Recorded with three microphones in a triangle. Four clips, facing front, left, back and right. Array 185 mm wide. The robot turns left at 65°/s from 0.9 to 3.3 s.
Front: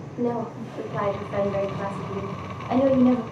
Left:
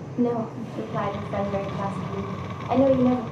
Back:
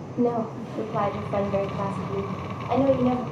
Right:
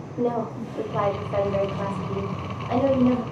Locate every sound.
0.2 s a woman speaking: 135° right, 0.9 m; by 3.2 s 75° left, 0.9 m